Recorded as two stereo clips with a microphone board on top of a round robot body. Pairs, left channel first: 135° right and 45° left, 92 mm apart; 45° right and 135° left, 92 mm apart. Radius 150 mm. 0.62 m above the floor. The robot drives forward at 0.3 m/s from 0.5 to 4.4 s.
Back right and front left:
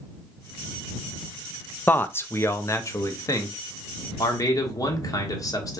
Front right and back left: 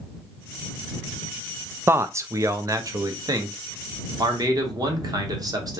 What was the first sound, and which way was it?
A man speaking, 170° left.